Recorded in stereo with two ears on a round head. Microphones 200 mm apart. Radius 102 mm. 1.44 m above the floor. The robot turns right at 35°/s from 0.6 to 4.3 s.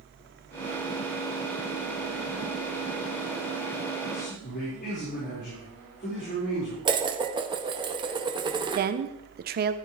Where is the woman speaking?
45° right (ahead or behind), 0.9 m.